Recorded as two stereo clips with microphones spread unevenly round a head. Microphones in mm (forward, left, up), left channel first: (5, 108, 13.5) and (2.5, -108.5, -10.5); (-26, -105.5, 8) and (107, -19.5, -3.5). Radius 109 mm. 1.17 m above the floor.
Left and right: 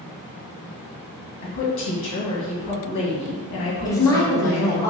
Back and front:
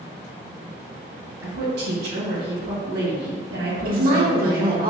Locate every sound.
1.4 s a woman speaking: 55° left, 1.6 m
3.9 s a woman speaking: 10° left, 1.4 m